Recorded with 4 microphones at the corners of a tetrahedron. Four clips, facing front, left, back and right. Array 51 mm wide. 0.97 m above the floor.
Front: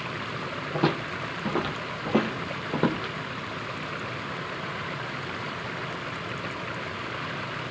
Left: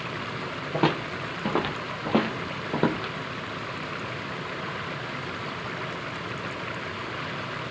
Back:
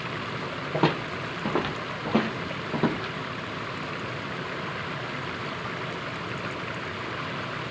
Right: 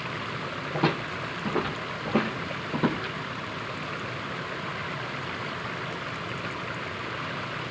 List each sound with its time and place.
0.7 s footsteps: 135° left, 1.4 m; by 3.1 s 55° left, 1.7 m